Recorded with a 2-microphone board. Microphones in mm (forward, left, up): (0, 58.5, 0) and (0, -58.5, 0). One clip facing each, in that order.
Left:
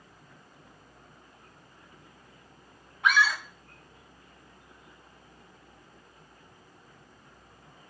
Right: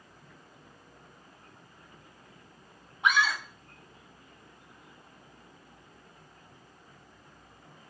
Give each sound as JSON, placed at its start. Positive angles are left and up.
{"t": 3.0, "sound": "a scream", "side_deg": -20, "distance_m": 1.0}